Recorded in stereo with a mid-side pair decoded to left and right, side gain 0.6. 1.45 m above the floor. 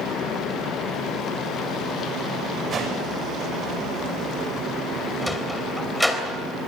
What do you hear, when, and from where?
2.7 s a whoosh: 35° right, 8 m
5.2 s a sliding door: 5° left, 3.5 m